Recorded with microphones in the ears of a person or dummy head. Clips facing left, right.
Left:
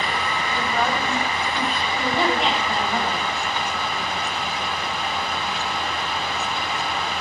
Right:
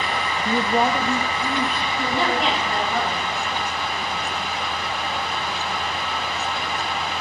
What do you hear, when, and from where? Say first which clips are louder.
0.5 s a woman speaking: right 5 dB; 35° right (ahead or behind), 0.5 m; by 1.9 s 20° right (ahead or behind), 2 m
2.0 s a woman speaking: left 1 dB; 10° right (ahead or behind), 7 m